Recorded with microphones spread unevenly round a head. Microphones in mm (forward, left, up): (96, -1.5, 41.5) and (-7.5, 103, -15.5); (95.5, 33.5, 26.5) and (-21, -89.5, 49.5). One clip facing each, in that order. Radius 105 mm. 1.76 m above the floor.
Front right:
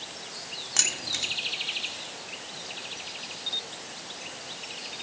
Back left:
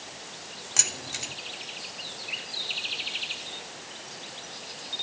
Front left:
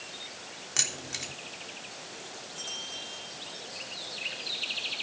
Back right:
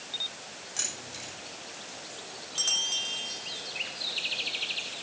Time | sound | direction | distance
0.8 | keys jangling | 40° left | 3 m